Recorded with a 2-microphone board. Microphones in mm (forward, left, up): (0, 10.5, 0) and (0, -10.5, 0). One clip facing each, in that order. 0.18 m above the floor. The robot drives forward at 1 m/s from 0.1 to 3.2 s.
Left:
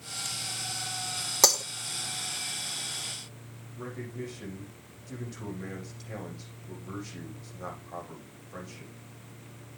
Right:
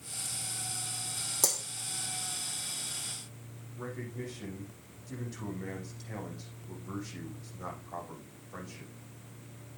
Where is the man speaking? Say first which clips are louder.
Left 2 dB; 5° left (ahead or behind), 7 m.